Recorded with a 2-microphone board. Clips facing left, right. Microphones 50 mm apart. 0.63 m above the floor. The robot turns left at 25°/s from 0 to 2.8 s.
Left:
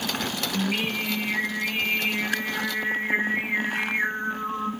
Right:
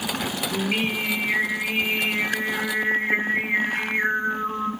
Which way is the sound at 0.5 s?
90° right.